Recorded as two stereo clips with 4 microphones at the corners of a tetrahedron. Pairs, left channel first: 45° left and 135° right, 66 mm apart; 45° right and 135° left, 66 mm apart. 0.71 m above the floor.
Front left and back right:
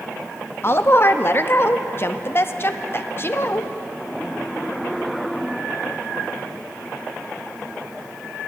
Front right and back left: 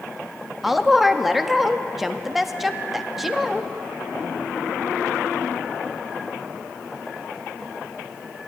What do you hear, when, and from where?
0.6 s a woman speaking: 50° left, 0.5 m